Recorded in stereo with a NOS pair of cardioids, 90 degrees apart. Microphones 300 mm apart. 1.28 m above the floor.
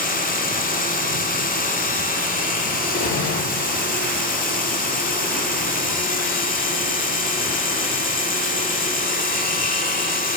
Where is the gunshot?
70° left, 6.5 m.